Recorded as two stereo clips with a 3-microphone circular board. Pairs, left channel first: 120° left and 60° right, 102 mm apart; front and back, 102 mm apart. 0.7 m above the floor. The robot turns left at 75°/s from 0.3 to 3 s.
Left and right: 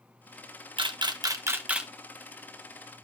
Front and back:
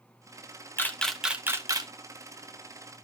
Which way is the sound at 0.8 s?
60° right.